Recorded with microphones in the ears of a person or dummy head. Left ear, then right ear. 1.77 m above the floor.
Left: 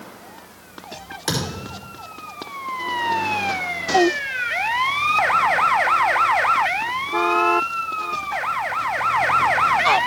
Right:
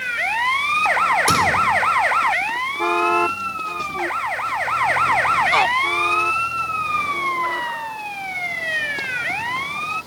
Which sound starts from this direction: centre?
A thud, at 1.3 s.